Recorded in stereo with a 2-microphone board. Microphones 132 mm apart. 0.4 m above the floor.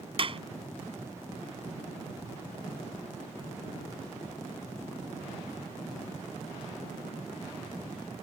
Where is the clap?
45° right (ahead or behind).